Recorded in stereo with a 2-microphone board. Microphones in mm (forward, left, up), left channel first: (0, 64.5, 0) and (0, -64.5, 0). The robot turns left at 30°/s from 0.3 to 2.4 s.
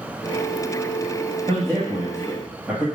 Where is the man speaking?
45° right (ahead or behind), 1.7 m; by 2.9 s 15° right (ahead or behind), 1.7 m.